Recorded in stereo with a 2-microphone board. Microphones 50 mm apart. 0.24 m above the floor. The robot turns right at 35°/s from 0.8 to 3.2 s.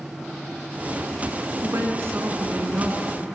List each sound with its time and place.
1.6 s a woman speaking: 90° right, 2 m; by 3.2 s 35° right, 2 m